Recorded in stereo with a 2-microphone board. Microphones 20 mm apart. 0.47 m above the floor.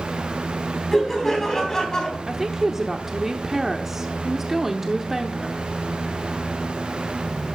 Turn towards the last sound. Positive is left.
turn(degrees=-20)  # may be behind; listen again after turning